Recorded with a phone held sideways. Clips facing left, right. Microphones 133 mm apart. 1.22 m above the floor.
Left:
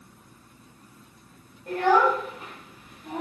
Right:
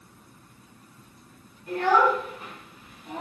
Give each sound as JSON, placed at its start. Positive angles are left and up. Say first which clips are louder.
{"t": 1.7, "sound": "a child speaking", "louder": "left 1 dB", "side_deg": 70, "distance_m": 1.5}